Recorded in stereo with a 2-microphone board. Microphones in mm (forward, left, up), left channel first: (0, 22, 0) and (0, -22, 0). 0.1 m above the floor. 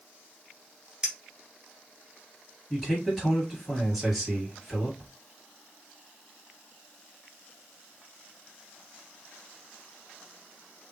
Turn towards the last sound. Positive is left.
turn(degrees=0)  # may be behind; listen again after turning